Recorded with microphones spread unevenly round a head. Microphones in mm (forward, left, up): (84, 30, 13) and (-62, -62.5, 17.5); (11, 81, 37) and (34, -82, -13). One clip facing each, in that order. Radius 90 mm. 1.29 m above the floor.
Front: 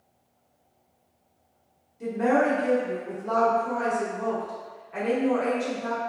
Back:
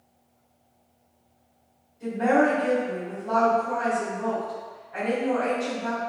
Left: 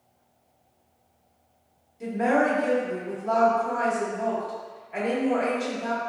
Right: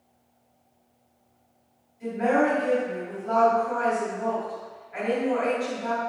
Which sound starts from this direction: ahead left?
A woman speaking, at 2.0 s.